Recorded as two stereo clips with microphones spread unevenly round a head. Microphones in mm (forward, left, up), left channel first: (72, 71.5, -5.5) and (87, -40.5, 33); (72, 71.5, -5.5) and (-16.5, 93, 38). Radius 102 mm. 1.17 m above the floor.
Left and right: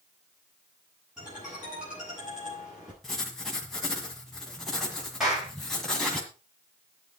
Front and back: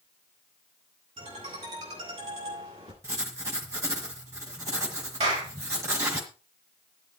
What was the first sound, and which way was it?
A ringtone, 165° right.